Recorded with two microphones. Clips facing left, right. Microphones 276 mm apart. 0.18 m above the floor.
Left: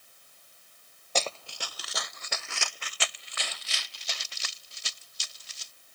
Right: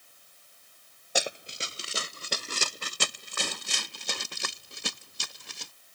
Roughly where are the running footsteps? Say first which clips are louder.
Right 1 dB; centre.